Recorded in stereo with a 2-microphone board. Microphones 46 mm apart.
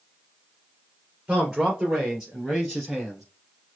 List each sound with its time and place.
1.3 s a man speaking: 20° right (ahead or behind), 2 m; by 3.2 s 10° right (ahead or behind), 3 m